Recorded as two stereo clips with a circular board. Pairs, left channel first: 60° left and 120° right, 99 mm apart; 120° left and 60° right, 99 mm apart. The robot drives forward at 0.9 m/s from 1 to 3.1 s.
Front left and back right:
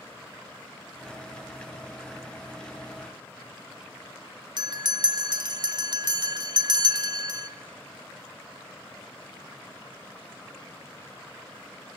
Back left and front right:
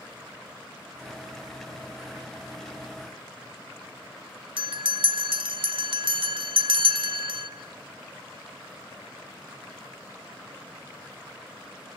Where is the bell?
80° right, 1.3 m.